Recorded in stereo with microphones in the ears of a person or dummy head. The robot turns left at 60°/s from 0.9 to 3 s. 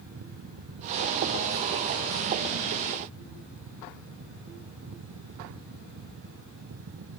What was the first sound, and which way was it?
Only background noise.